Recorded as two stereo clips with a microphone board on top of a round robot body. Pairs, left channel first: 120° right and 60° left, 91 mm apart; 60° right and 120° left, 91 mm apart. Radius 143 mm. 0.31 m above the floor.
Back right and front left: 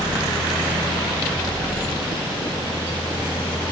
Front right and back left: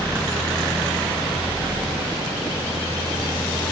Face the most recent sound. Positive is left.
No sound to turn to.